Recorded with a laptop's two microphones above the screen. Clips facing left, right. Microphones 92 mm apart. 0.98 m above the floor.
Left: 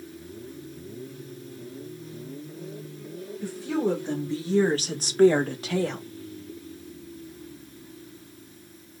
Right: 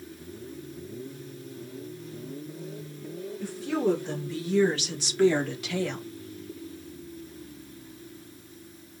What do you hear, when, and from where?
3.4 s a woman speaking: 10° left (ahead or behind), 1.9 m; by 6.0 s 35° left (ahead or behind), 1.6 m